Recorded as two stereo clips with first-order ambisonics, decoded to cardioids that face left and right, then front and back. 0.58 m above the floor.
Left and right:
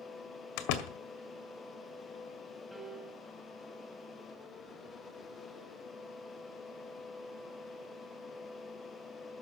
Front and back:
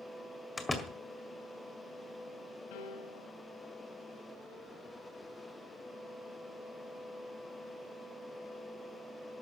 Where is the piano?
5° left, 2 m.